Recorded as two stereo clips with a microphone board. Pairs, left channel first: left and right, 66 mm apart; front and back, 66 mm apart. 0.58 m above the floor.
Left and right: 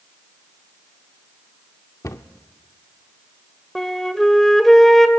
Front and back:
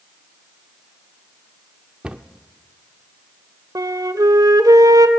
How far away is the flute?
About 1.2 m.